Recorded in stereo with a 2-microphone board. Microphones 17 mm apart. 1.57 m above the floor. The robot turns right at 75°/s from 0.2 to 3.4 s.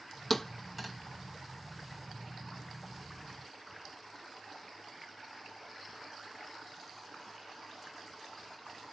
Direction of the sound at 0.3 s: 5° left (ahead or behind).